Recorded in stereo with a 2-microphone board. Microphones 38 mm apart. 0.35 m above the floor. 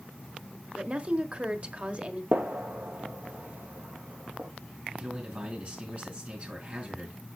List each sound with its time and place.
0.8 s a woman speaking: 30° right (ahead or behind), 1.0 m
2.3 s a gunshot: 65° right (ahead or behind), 1.6 m
4.9 s a man speaking: 35° right (ahead or behind), 4 m